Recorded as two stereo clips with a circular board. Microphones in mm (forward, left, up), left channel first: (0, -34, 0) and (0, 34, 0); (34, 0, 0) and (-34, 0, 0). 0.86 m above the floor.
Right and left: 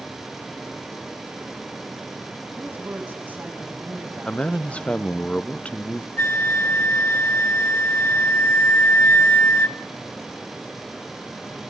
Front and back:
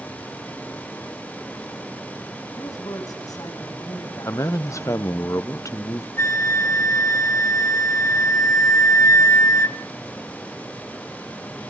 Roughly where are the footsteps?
I don't hear footsteps.